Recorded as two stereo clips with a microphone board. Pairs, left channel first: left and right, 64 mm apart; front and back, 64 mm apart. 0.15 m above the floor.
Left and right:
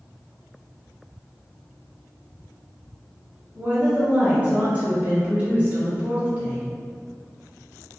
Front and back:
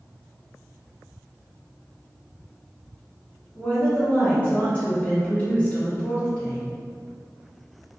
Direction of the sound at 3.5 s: 45° right.